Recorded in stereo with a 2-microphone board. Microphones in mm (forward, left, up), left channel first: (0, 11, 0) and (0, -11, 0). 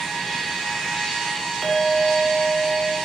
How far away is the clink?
About 1.7 m.